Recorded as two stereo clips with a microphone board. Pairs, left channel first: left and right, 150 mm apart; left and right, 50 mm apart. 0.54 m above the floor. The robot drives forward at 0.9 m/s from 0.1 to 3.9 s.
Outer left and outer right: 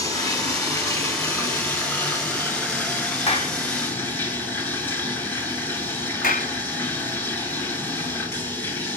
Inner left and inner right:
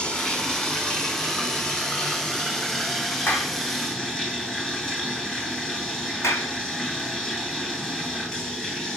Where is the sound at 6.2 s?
70° left (ahead or behind), 3 m.